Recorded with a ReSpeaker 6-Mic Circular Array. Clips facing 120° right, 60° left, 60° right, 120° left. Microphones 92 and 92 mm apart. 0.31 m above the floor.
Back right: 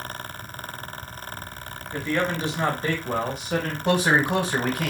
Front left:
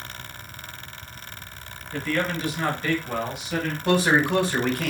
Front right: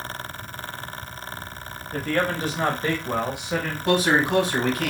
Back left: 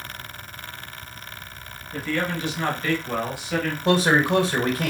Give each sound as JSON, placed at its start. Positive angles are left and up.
{"t": 1.9, "sound": "a man speaking", "azimuth_deg": -55, "distance_m": 1.2}
{"t": 3.9, "sound": "a man speaking", "azimuth_deg": 170, "distance_m": 1.8}